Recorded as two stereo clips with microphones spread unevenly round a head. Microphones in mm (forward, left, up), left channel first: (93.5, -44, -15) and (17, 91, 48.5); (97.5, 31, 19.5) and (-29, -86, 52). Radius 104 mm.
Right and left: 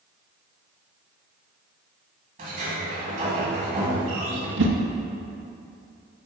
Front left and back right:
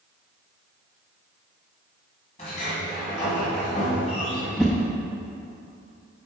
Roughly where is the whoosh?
Behind left.